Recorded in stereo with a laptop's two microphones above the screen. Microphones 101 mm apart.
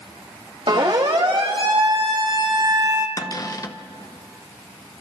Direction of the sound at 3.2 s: 35° left (ahead or behind).